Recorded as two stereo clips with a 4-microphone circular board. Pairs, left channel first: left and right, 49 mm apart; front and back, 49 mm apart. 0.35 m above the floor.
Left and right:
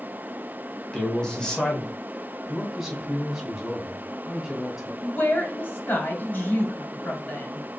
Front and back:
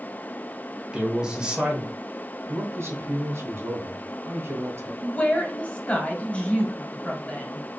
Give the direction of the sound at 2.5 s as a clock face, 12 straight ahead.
6 o'clock.